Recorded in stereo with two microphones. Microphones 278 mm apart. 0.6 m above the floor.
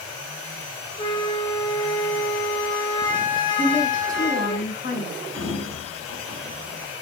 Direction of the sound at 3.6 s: 30° left (ahead or behind).